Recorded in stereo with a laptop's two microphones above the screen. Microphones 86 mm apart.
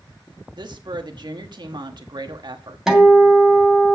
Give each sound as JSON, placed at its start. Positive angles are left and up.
{"t": 0.6, "sound": "a woman speaking", "side_deg": -55, "distance_m": 1.3}
{"t": 2.9, "sound": "a guitar", "side_deg": -5, "distance_m": 2.0}